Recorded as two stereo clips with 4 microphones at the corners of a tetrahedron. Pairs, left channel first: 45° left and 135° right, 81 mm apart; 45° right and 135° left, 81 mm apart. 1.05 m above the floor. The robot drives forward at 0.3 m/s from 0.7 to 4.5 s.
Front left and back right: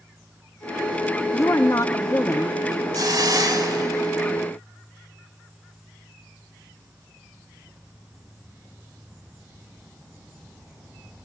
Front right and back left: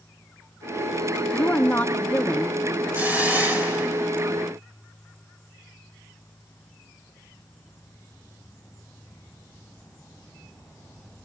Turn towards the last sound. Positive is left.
turn(degrees=-160)